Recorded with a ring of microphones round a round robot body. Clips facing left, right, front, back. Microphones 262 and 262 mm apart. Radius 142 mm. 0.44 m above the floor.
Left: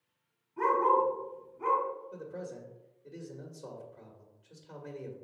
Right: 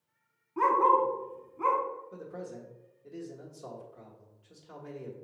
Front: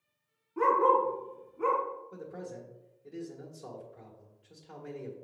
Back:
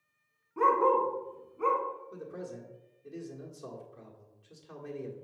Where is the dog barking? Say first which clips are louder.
Right 1 dB, even; 100° right, 2 m.